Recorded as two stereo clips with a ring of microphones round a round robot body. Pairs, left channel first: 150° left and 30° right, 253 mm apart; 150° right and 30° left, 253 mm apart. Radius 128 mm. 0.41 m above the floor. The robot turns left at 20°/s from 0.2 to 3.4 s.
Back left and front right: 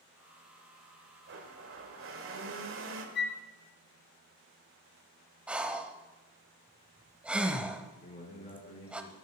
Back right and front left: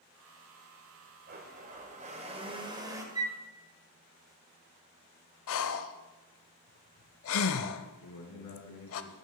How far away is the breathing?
About 0.7 m.